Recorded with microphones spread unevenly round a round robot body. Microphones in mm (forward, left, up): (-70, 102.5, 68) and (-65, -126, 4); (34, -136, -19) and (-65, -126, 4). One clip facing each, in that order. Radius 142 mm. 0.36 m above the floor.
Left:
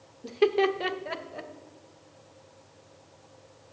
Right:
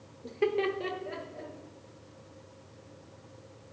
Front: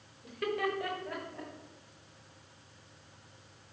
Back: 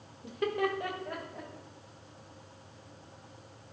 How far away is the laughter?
About 0.8 m.